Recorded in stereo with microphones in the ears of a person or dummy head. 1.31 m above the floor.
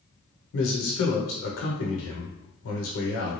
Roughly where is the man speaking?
Left.